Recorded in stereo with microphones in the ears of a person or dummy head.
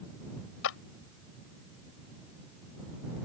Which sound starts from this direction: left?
A clap, at 0.6 s.